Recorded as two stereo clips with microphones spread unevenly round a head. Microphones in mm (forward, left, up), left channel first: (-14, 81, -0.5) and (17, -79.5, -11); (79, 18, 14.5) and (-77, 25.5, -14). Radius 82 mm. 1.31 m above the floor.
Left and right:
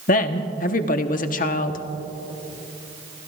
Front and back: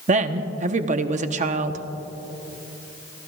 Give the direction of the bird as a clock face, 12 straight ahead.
No bird in this recording.